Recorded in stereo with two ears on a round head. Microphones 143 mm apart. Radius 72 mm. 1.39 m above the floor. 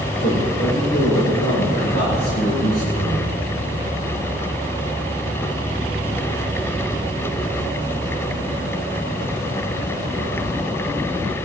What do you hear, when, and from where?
0.2 s a man speaking: 80° left, 4.5 m; by 3.3 s 70° left (ahead or behind), 6.5 m